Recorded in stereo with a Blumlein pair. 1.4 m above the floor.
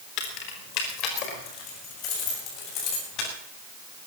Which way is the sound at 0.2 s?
40° left.